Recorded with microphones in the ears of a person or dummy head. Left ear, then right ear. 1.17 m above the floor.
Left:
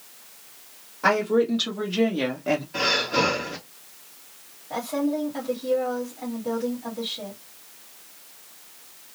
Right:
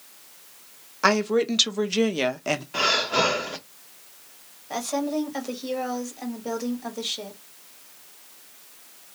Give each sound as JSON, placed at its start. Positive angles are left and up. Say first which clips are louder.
{"t": 1.0, "sound": "a woman speaking", "louder": "even", "side_deg": -60, "distance_m": 1.1}
{"t": 2.7, "sound": "breathing", "louder": "right 2 dB", "side_deg": -35, "distance_m": 0.9}
{"t": 4.7, "sound": "a woman speaking", "louder": "even", "side_deg": -80, "distance_m": 1.5}